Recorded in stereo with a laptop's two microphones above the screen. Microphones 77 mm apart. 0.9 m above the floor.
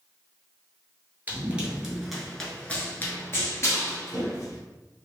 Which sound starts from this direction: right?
Running footsteps, at 1.3 s.